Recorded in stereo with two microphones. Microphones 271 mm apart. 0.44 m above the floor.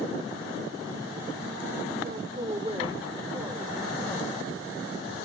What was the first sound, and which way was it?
A man speaking, 35° right (ahead or behind).